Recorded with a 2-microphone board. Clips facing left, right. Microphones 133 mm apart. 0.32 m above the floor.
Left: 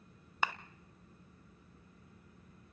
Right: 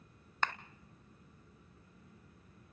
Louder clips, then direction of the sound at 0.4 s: Left 1 dB; 10° left (ahead or behind).